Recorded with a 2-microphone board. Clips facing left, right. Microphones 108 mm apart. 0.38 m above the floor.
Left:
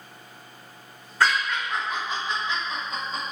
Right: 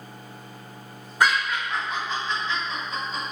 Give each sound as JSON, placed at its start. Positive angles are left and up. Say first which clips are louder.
{"t": 1.2, "sound": "laughter", "louder": "right 1 dB", "side_deg": -15, "distance_m": 0.9}